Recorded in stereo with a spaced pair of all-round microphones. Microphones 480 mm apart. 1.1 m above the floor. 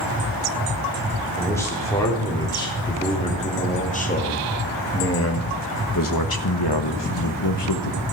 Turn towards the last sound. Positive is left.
turn(degrees=55)  # may be behind; listen again after turning